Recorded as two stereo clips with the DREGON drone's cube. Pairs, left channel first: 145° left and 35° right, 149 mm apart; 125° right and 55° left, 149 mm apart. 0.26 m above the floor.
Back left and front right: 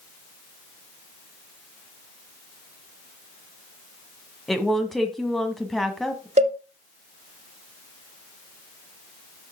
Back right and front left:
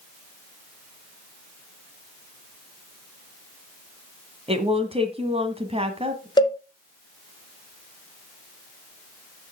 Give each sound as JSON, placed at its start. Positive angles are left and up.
{"t": 4.5, "sound": "a woman speaking", "azimuth_deg": 55, "distance_m": 1.6}
{"t": 6.4, "sound": "a cowbell", "azimuth_deg": -65, "distance_m": 1.2}